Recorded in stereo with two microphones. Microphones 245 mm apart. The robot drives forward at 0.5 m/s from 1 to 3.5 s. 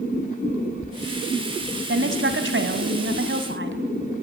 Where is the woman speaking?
50° right (ahead or behind), 1.8 m.